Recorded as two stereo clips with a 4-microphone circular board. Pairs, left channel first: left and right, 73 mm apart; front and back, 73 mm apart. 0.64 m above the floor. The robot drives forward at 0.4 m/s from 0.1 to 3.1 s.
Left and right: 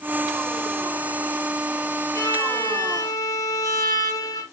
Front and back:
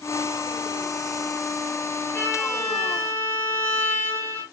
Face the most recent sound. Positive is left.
turn(degrees=70)